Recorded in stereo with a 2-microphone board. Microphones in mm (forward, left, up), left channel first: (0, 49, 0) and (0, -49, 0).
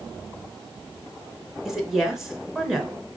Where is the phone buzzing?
I don't hear a phone buzzing.